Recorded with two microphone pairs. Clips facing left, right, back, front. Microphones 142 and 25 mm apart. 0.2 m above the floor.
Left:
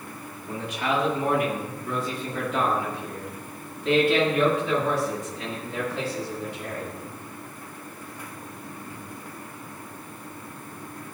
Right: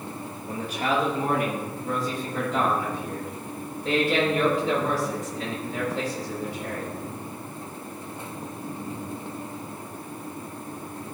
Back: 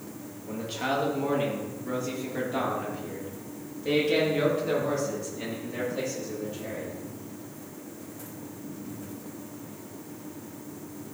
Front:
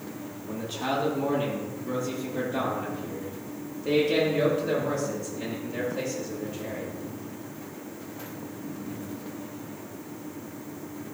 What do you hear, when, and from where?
0.5 s a man speaking: 135° right, 4.5 m; by 6.9 s 140° right, 10.5 m